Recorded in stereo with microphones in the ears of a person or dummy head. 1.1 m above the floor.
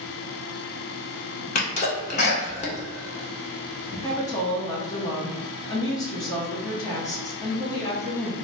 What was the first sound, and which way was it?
A sneeze, 35° left (ahead or behind).